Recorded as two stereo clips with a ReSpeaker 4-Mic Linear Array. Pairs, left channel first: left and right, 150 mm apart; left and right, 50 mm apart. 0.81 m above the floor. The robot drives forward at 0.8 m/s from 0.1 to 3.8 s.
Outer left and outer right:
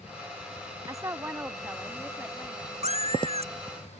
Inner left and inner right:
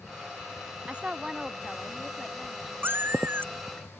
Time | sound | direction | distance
0.9 | a woman speaking | 25° right (ahead or behind) | ?
2.8 | a cat meowing | 45° right (ahead or behind) | ?